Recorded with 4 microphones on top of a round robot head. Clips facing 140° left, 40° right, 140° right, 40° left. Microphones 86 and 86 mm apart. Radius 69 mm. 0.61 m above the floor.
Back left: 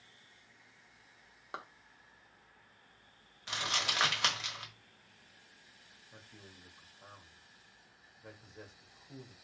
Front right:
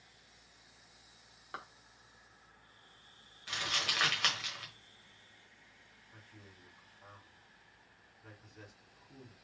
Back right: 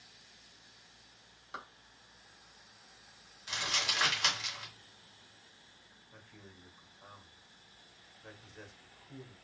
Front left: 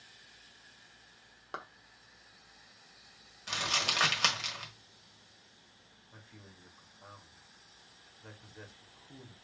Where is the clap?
75° left, 1.1 m.